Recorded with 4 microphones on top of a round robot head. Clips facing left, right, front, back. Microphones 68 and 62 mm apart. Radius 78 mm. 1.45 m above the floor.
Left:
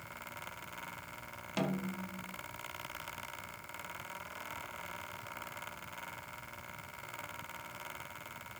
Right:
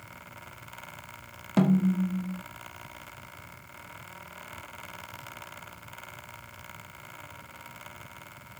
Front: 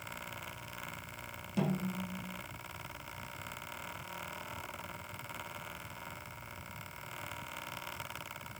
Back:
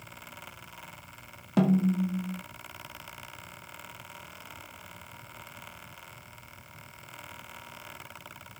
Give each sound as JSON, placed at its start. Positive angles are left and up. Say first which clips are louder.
{"t": 1.6, "sound": "a snare drum", "louder": "right 13 dB, back 11 dB", "azimuth_deg": -140, "distance_m": 1.8}